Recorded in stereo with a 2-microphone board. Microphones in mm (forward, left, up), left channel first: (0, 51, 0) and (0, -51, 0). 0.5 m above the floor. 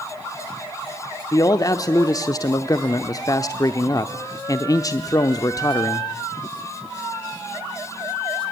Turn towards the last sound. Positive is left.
turn(degrees=35)  # may be behind; listen again after turning